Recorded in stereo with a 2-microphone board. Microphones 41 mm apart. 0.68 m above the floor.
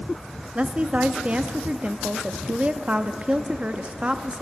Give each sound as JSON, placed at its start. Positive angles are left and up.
{"t": 0.6, "sound": "a woman speaking", "side_deg": -30, "distance_m": 0.5}